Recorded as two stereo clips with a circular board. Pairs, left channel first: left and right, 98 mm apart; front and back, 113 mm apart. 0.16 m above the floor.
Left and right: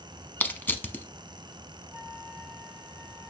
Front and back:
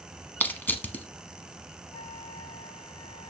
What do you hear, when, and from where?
0.4 s crushing: 50° left, 0.8 m
1.9 s a flute: straight ahead, 1.5 m